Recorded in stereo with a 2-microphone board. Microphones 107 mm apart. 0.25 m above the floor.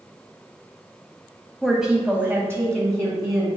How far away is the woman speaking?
About 1.2 m.